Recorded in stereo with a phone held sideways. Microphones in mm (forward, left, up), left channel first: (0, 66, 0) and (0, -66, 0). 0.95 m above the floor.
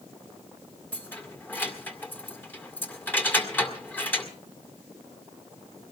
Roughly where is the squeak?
I don't hear a squeak.